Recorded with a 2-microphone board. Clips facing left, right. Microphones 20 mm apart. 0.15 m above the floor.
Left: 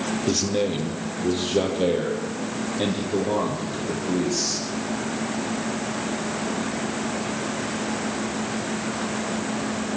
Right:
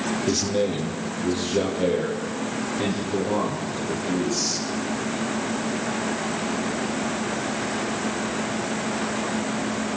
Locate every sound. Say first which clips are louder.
0.3 s a man speaking: left 1 dB; 10° left (ahead or behind), 4 m; by 4.6 s 25° left (ahead or behind), 8.5 m